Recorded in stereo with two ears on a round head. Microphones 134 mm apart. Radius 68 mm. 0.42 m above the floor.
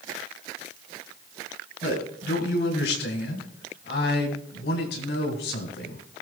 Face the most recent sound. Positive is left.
turn(degrees=75)  # may be behind; listen again after turning